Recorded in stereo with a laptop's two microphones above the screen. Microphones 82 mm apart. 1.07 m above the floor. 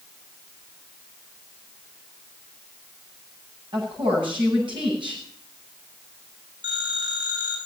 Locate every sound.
3.7 s a woman speaking: 75° right (ahead or behind), 10 m
6.6 s a phone ringing: 70° right (ahead or behind), 9.5 m